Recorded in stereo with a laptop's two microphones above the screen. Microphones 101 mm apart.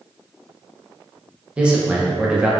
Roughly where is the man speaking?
Centre.